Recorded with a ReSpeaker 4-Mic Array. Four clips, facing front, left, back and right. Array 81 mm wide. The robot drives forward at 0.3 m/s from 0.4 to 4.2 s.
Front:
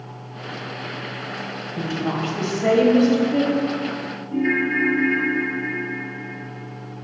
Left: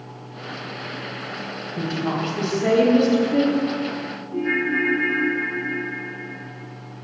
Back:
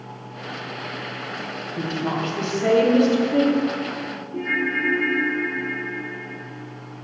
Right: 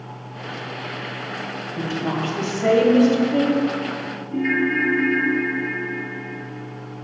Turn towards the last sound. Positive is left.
turn(degrees=-50)